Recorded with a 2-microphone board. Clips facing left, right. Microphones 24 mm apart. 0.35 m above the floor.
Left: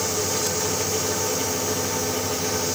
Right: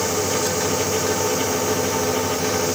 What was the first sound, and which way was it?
Only background noise.